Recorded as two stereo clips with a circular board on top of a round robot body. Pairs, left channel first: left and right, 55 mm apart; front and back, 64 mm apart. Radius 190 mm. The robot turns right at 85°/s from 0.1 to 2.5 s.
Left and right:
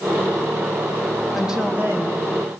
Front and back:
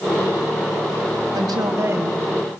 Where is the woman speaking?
Straight behind, 5.5 m; by 2.2 s 105° right, 5.5 m.